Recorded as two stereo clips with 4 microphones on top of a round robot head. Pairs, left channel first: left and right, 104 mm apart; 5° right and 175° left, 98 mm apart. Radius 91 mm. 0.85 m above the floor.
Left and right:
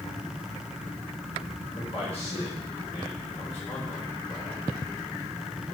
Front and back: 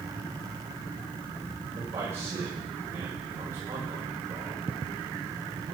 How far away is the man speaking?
About 5 m.